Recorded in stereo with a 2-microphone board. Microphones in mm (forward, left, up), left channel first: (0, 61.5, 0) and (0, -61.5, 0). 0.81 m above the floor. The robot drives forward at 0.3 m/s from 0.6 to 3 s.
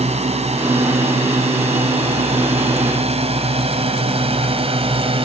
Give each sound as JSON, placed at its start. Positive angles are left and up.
{"t": 0.0, "sound": "a drone", "side_deg": -60}